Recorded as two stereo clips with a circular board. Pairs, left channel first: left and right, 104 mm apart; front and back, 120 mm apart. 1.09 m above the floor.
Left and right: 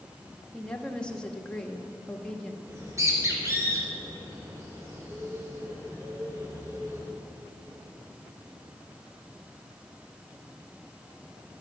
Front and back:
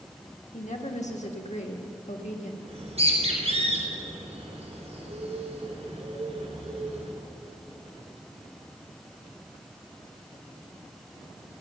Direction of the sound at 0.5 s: 10° left.